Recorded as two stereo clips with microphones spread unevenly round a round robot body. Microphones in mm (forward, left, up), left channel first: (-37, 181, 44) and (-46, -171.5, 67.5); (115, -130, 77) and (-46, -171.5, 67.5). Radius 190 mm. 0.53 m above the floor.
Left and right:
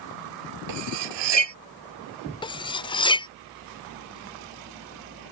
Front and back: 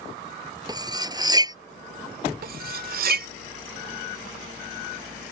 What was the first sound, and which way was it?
Cutlery clinking, 100° right.